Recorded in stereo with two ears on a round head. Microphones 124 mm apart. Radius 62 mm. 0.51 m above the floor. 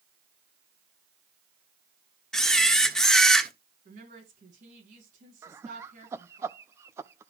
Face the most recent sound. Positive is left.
turn(degrees=-20)  # may be behind; listen again after turning